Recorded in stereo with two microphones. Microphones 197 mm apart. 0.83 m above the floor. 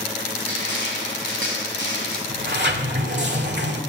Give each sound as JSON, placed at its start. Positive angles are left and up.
{"t": 0.3, "sound": "crushing", "side_deg": -80, "distance_m": 5.5}
{"t": 2.3, "sound": "a sliding door", "side_deg": -60, "distance_m": 1.9}